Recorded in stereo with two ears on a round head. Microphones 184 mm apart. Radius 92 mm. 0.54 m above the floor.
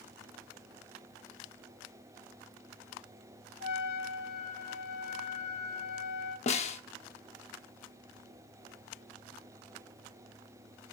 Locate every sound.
3.6 s a trumpet: 75° left (ahead or behind), 4 m
6.5 s a snare drum: 30° left (ahead or behind), 0.8 m